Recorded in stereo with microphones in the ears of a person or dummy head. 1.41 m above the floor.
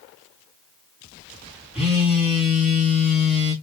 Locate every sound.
1.8 s a phone buzzing: 5° right (ahead or behind), 1.5 m